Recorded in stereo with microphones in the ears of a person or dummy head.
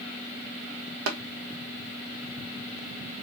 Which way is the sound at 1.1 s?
75° right (ahead or behind).